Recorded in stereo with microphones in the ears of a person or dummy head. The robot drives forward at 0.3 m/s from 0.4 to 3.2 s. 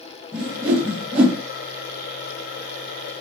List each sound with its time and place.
0.3 s a whoosh: centre (ahead or behind), 0.8 m; by 1.4 s 5° right (ahead or behind), 0.5 m